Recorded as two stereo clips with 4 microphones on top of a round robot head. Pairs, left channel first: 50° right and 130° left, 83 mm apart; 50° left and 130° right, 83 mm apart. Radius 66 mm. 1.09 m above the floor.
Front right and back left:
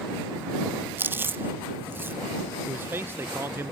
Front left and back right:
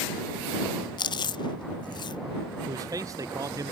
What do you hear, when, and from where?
1.0 s chewing: 65° left
2.7 s a man speaking: 170° right